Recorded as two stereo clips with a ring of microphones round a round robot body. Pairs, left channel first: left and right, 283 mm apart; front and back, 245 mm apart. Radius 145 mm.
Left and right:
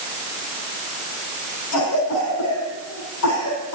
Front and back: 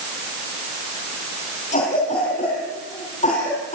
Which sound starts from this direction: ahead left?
A cough, at 1.7 s.